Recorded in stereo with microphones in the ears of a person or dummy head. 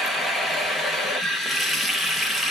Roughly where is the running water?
Centre.